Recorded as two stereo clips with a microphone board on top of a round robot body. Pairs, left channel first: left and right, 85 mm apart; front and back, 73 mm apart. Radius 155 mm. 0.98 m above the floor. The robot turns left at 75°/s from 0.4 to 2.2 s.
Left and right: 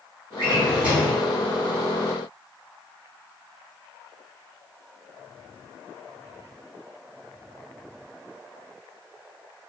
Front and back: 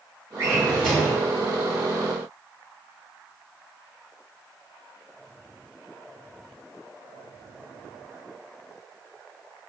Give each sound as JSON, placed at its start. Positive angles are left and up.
{"t": 0.4, "sound": "a drawer", "azimuth_deg": -135, "distance_m": 1.0}